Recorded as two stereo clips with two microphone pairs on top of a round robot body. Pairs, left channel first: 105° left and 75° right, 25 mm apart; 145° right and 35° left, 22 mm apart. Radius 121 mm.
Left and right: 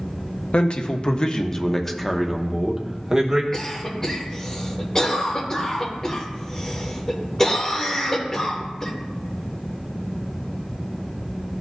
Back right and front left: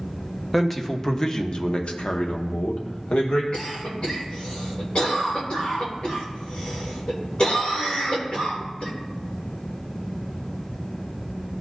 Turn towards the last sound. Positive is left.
turn(degrees=170)